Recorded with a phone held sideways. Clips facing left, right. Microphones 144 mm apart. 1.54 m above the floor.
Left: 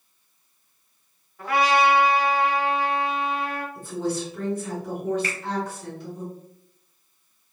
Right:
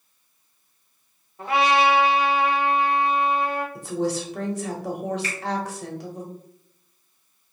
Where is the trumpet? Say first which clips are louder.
Even; 25° right (ahead or behind), 0.7 m.